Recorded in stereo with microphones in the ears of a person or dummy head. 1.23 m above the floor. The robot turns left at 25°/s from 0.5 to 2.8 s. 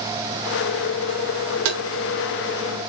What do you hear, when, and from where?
1.6 s tapping: 65° right (ahead or behind), 1.2 m; by 1.8 s 70° right (ahead or behind), 1.2 m